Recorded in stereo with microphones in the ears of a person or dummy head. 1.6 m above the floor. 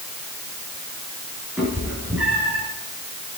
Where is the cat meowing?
10° right (ahead or behind), 4.5 m.